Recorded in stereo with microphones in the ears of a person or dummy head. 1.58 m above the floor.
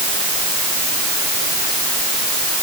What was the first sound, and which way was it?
Only background noise.